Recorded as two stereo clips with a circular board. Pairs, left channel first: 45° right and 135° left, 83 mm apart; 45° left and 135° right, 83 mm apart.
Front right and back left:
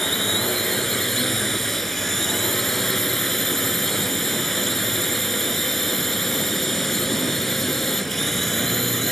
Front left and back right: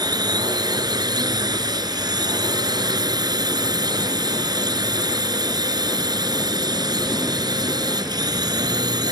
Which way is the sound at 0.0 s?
130° right.